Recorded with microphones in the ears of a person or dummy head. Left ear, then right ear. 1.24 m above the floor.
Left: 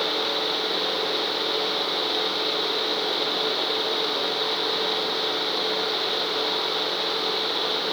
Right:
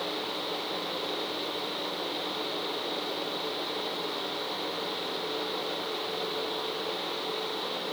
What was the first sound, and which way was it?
Only background noise.